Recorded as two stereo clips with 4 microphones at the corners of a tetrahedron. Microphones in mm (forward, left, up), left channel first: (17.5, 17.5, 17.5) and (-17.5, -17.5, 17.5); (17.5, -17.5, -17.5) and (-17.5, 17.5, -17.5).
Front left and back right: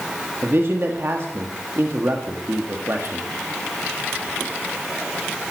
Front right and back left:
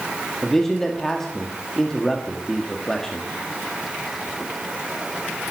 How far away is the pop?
No pop in this recording.